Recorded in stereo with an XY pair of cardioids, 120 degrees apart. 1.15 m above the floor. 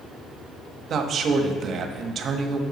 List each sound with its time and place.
0.9 s a man speaking: 50° right, 1.2 m